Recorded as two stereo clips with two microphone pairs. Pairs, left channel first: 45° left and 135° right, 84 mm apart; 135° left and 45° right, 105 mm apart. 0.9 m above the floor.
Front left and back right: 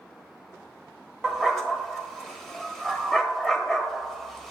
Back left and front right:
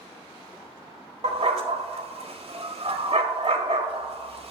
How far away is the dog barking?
About 1.4 m.